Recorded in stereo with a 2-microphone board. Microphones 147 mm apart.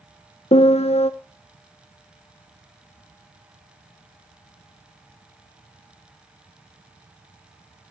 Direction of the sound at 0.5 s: 45° left (ahead or behind).